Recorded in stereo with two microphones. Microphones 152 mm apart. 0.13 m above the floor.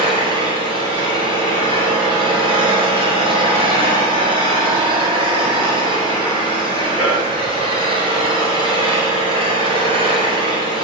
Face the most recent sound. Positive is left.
turn(degrees=-35)  # may be behind; listen again after turning